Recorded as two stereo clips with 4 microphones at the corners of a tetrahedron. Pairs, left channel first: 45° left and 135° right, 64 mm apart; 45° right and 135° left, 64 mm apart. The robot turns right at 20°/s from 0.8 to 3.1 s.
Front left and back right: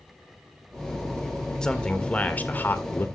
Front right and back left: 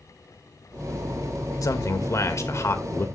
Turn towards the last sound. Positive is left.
turn(degrees=0)